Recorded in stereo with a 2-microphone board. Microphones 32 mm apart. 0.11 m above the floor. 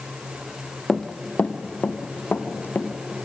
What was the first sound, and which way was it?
Running footsteps, 15° left (ahead or behind).